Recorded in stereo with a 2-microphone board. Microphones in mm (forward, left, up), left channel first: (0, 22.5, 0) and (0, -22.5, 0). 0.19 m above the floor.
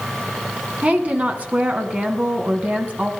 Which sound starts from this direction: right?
A woman speaking, at 0.8 s.